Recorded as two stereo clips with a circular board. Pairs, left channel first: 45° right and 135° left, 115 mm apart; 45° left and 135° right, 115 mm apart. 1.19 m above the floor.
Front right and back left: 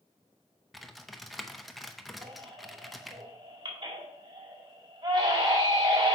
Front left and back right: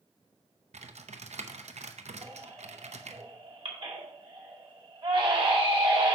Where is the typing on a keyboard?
135° right, 0.6 m.